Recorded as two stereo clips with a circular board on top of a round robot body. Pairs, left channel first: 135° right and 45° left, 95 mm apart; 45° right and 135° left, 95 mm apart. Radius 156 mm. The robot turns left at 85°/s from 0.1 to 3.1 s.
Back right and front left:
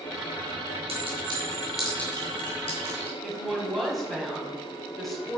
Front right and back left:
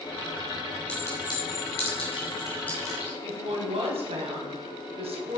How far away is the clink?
About 4.5 m.